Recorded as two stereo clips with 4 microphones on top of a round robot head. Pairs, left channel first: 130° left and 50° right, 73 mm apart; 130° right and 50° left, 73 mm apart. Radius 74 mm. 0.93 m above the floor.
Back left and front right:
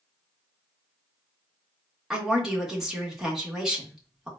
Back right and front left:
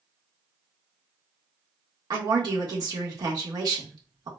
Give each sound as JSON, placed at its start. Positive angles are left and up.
{"t": 2.1, "sound": "a woman speaking", "azimuth_deg": 30, "distance_m": 1.4}